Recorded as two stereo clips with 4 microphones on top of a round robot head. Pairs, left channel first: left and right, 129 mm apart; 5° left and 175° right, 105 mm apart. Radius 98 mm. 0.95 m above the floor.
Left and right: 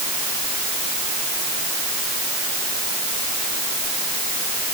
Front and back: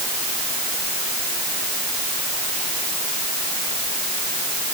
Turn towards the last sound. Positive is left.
No sound to turn to.